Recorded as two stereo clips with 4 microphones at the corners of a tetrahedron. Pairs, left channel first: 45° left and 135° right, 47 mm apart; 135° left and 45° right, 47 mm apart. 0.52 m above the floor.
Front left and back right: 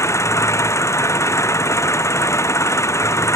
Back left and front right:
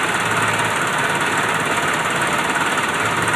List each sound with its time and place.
0.0 s an engine running: 50° left